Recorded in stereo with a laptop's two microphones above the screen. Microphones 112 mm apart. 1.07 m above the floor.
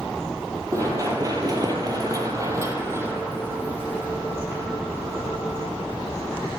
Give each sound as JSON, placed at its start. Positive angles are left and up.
{"t": 0.7, "sound": "running footsteps", "side_deg": -30, "distance_m": 1.6}